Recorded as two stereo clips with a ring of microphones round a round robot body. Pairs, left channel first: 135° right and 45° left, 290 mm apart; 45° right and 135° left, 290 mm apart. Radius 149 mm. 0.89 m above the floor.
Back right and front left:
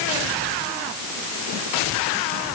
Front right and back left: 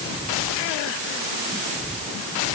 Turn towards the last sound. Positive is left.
No sound to turn to.